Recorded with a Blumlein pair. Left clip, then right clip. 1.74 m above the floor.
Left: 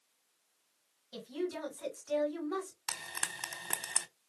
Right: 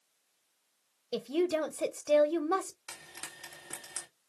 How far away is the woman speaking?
About 0.6 m.